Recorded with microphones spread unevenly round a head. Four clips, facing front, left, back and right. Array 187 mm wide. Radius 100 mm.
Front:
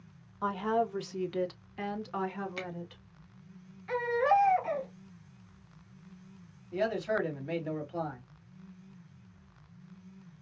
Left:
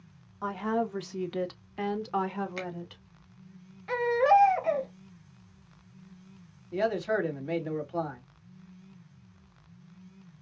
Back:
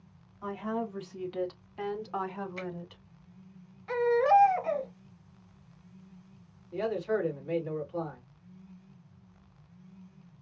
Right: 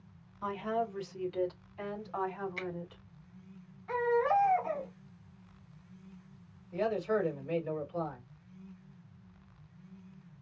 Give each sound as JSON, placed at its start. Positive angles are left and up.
{"t": 0.4, "sound": "a woman speaking", "azimuth_deg": 35, "distance_m": 1.3}
{"t": 2.6, "sound": "a finger snap", "azimuth_deg": 50, "distance_m": 1.8}
{"t": 3.9, "sound": "a baby crying", "azimuth_deg": 100, "distance_m": 1.5}
{"t": 6.7, "sound": "a man speaking", "azimuth_deg": 60, "distance_m": 2.5}